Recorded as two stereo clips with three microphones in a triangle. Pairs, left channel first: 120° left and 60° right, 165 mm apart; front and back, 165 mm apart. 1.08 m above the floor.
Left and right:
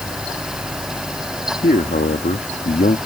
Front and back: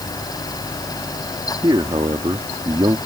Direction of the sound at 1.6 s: 125° left.